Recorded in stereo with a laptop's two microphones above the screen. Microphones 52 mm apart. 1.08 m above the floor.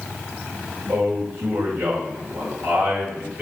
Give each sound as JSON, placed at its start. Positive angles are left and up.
{"t": 0.9, "sound": "a man speaking", "side_deg": -50, "distance_m": 3.5}